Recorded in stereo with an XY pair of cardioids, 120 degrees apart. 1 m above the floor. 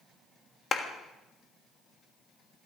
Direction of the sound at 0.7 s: 35° left.